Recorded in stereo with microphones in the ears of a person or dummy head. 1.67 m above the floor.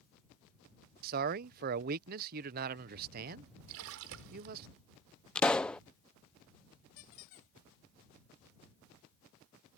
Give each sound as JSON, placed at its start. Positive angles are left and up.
{"t": 1.0, "sound": "a man speaking", "side_deg": -50}
{"t": 3.7, "sound": "a splash", "side_deg": -75}
{"t": 5.3, "sound": "a pop", "side_deg": 10}
{"t": 7.0, "sound": "a squeak", "side_deg": 30}